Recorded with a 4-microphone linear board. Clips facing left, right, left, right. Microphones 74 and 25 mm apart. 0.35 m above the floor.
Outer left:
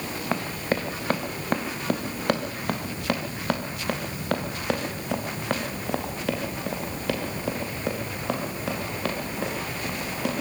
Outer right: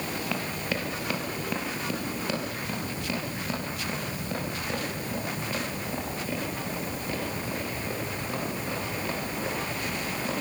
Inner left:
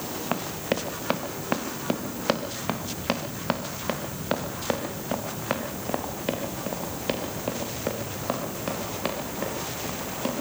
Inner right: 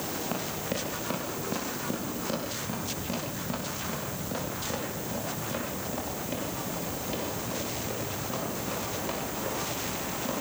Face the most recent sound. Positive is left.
turn(degrees=80)